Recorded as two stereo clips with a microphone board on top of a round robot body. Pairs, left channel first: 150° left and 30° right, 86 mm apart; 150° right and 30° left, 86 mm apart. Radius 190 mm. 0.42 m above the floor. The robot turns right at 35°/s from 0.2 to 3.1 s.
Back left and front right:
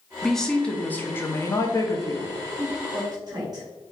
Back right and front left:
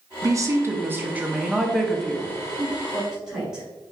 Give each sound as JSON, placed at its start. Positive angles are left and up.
{"t": 0.2, "sound": "a woman speaking", "azimuth_deg": 60, "distance_m": 1.0}
{"t": 2.6, "sound": "a woman speaking", "azimuth_deg": -70, "distance_m": 1.5}